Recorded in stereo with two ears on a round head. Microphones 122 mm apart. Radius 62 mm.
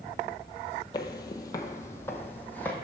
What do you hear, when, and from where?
0.9 s footsteps: 30° left (ahead or behind), 0.6 m; by 2.7 s 10° left (ahead or behind), 1.2 m